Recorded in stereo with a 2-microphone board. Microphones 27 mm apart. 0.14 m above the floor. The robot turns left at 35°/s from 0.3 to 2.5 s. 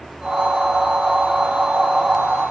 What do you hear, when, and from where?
Only background noise.